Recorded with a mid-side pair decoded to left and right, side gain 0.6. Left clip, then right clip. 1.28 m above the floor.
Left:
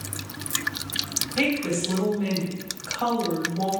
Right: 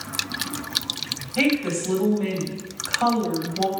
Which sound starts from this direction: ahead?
A woman speaking, at 1.4 s.